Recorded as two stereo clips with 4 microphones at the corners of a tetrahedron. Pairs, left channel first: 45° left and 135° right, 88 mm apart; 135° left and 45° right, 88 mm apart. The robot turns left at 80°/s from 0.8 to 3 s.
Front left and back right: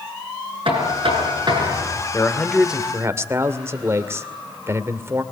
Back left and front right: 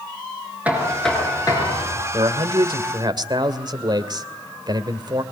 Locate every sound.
0.7 s knocking: 120° right, 6.5 m; by 2.0 s 140° left, 6.5 m
2.1 s a man speaking: 10° right, 2 m; by 5.2 s 80° right, 2 m